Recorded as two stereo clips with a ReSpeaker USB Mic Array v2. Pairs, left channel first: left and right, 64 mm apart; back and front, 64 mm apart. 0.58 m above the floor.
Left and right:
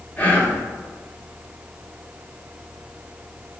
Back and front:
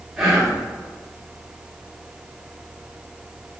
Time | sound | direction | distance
0.2 | whispering | 75° left | 0.8 m